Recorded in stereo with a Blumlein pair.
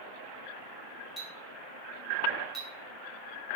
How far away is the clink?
About 2 m.